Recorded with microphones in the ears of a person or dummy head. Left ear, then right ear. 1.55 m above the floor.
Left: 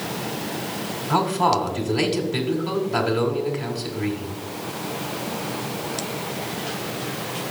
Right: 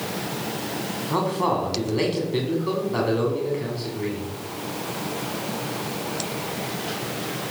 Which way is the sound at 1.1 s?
20° left (ahead or behind).